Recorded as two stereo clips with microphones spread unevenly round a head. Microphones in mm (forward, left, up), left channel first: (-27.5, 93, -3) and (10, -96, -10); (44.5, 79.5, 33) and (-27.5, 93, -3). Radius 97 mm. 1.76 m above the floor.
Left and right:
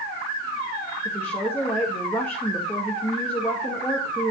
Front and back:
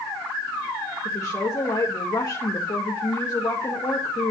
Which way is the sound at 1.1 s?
20° left.